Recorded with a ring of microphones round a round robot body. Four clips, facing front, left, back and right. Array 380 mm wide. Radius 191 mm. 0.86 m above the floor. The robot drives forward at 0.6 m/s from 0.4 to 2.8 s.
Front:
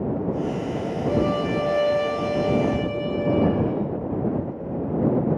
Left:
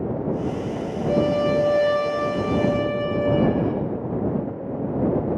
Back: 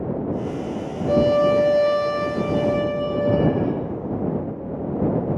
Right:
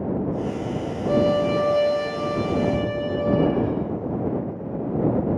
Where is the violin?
145° right, 6.5 m; by 3.7 s 150° right, 7.5 m.